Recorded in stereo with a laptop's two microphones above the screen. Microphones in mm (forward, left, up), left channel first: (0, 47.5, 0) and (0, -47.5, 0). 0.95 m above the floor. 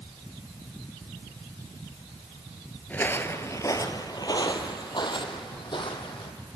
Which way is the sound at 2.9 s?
15° left (ahead or behind).